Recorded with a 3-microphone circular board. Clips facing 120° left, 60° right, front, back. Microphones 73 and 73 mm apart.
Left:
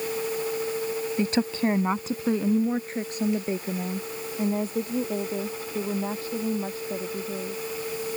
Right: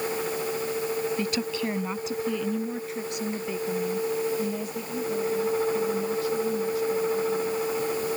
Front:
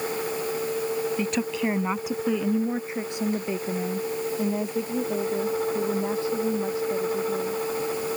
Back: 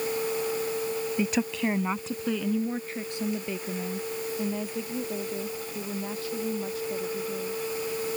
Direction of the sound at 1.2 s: 110° left.